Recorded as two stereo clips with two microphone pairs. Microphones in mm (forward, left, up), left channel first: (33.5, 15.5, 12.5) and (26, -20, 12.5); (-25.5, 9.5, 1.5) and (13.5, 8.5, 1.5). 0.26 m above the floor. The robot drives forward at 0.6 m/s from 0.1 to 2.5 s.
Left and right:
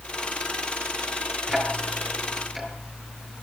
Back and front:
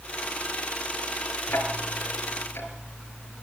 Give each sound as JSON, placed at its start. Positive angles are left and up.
{"t": 1.5, "sound": "ticking", "azimuth_deg": 175, "distance_m": 3.5}